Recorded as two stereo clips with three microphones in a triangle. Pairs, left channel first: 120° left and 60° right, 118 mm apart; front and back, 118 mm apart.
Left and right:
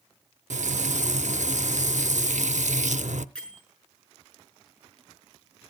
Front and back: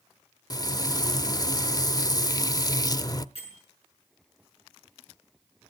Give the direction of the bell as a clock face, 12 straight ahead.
11 o'clock.